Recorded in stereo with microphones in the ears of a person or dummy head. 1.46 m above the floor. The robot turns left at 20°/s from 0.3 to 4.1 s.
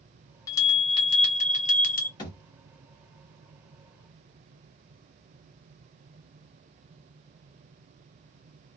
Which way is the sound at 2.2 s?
25° left (ahead or behind).